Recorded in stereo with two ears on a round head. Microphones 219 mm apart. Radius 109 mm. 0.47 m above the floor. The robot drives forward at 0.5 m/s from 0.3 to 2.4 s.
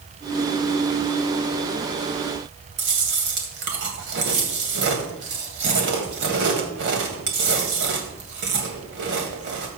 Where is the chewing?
50° right (ahead or behind), 3 m.